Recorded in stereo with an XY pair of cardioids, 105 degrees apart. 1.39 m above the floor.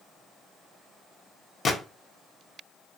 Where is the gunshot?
45° left, 0.7 m.